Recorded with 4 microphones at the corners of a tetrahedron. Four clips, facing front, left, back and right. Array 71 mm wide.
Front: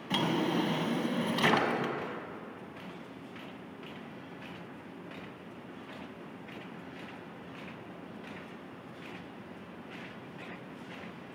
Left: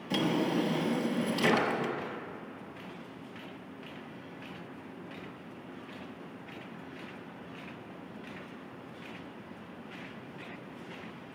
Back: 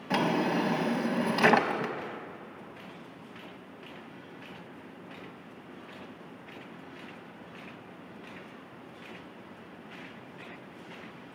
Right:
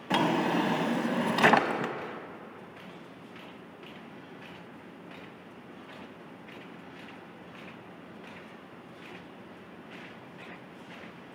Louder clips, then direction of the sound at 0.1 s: Right 3 dB, back 3 dB; 115° right.